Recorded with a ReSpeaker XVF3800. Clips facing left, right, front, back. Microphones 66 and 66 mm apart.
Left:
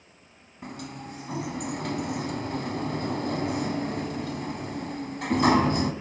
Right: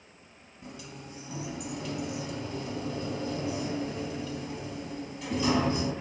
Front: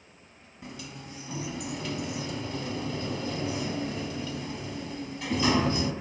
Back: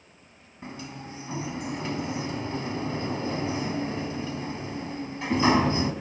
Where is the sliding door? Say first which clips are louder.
Left 6 dB, back 4 dB; 120° left, 3 m.